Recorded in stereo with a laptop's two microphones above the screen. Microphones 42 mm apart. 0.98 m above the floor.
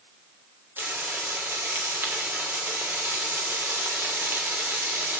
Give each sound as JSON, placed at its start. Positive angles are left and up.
{"t": 0.8, "sound": "frying", "side_deg": -55, "distance_m": 2.5}